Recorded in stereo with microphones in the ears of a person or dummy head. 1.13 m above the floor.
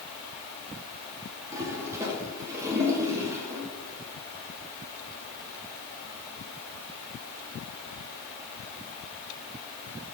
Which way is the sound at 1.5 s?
20° right (ahead or behind).